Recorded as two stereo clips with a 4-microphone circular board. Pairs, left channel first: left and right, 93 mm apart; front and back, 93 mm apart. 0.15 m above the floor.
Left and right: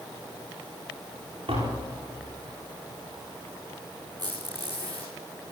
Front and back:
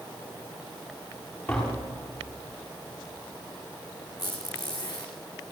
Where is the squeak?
50° right, 4 m.